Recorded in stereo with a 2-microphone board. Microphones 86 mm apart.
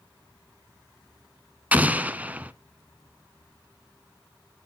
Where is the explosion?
15° right (ahead or behind), 0.6 m.